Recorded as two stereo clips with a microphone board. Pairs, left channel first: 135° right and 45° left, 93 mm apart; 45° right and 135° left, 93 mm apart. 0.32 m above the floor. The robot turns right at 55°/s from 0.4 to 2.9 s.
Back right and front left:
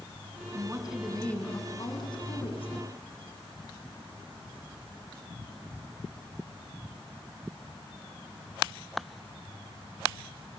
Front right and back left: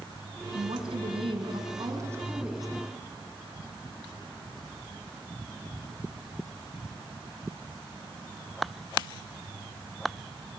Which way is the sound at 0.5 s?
110° left.